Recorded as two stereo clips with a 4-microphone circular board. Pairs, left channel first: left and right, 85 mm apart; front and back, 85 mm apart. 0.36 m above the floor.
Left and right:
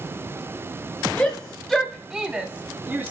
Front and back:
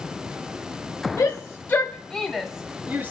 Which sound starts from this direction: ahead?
A shout, at 1.2 s.